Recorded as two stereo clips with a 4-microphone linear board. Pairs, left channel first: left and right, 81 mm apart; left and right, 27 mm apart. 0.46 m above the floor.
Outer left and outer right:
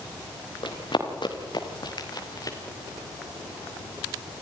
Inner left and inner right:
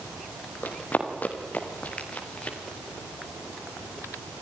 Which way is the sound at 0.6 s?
85° left.